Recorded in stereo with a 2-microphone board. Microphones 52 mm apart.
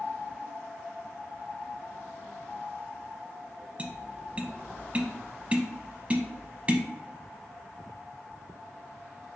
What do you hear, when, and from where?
3.8 s tapping: 25° right (ahead or behind), 0.6 m